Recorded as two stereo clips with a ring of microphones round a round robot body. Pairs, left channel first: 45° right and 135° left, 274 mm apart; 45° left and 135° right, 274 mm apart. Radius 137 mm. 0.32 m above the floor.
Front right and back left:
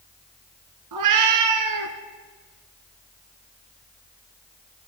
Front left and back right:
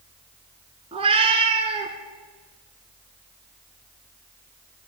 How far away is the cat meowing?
About 1.6 m.